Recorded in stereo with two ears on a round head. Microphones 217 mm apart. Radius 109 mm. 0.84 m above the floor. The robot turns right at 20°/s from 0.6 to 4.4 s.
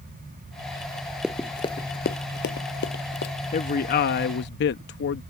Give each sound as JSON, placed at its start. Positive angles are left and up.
{"t": 1.2, "sound": "running footsteps", "side_deg": -5}
{"t": 3.5, "sound": "a man speaking", "side_deg": 30}